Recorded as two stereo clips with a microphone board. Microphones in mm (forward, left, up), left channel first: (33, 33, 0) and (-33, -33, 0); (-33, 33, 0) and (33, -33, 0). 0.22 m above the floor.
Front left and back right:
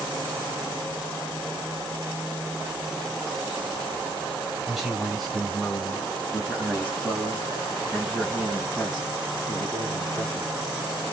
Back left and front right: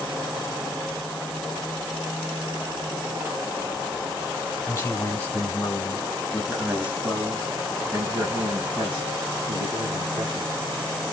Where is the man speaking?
145° left, 1.5 m; by 10.5 s 15° right, 2.5 m.